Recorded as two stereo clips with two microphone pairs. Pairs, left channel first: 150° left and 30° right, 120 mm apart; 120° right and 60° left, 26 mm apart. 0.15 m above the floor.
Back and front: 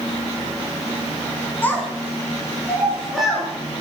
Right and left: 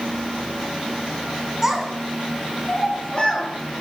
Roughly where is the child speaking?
Left.